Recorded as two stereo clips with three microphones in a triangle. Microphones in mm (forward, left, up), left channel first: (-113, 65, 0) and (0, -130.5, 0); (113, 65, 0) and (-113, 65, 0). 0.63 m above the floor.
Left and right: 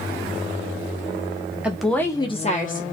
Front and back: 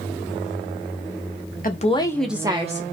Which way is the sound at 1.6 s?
20° left.